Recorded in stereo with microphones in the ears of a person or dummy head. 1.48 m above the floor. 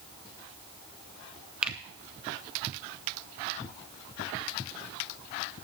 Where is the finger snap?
5° right (ahead or behind), 0.8 m.